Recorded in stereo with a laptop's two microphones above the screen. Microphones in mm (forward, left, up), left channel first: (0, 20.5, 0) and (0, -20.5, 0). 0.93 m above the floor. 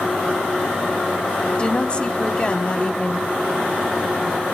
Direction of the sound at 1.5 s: 30° left (ahead or behind).